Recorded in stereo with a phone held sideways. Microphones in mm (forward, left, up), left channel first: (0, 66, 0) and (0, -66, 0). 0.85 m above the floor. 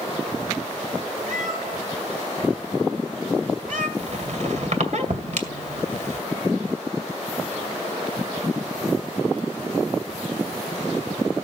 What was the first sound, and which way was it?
A cat meowing, 80° right.